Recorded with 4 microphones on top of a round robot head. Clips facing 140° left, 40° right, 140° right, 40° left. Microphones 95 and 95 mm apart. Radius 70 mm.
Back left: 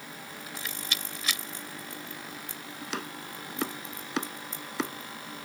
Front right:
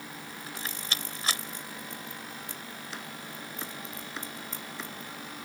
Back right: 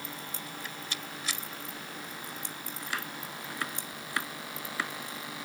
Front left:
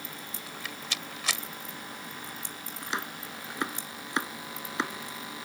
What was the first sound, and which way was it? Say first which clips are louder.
A rattle: even, front left 1 dB; 20° left.